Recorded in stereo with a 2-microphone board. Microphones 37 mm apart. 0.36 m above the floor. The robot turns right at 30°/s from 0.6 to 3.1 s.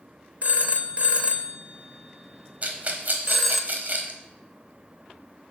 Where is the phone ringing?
40° right (ahead or behind), 0.6 m; by 3.6 s 5° right (ahead or behind), 0.6 m.